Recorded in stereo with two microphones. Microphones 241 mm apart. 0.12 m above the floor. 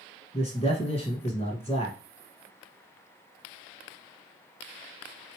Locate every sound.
0.3 s a man speaking: 25° left (ahead or behind), 1.5 m